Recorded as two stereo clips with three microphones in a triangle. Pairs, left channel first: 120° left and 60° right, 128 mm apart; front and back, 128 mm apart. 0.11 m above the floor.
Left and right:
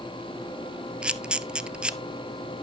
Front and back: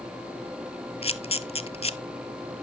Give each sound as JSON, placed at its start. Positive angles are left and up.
{"t": 1.0, "sound": "a camera shutter", "azimuth_deg": 20, "distance_m": 0.5}